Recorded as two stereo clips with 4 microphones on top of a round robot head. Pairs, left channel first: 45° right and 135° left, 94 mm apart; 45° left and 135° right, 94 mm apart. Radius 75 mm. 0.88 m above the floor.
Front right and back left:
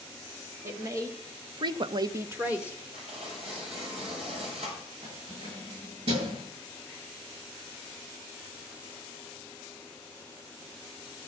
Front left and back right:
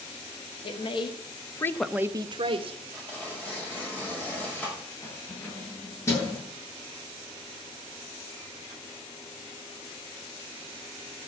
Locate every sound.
0.6 s a woman speaking: 70° left, 2 m; by 2.8 s 140° right, 1.5 m
2.9 s tearing paper: 120° left, 5.5 m
5.0 s keys jangling: 110° left, 9 m